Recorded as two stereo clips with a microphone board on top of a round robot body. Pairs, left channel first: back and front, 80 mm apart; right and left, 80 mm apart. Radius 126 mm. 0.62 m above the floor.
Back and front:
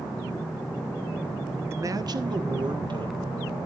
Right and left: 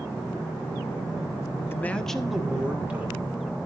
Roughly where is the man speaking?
Ahead right.